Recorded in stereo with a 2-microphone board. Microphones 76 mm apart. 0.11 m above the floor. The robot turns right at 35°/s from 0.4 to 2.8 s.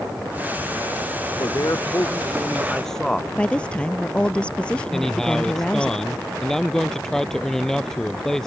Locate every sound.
1.4 s a man speaking: 125° left; by 3.2 s 175° left
3.4 s a woman speaking: 15° left (ahead or behind)
4.9 s a man speaking: 5° left (ahead or behind)